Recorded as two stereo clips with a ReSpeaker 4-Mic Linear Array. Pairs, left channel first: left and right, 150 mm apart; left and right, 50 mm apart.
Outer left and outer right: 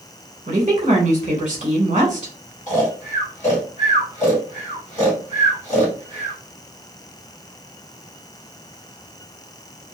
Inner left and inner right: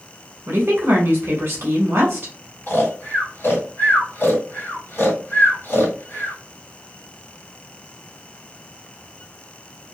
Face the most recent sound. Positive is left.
turn(degrees=50)  # may be behind; listen again after turning